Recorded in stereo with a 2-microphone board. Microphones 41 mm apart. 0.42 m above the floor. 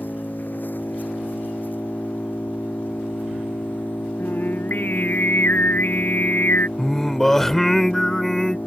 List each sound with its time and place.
0.0 s an engine running: 50° left (ahead or behind)
4.2 s singing: 50° left (ahead or behind)
6.8 s singing: 10° left (ahead or behind)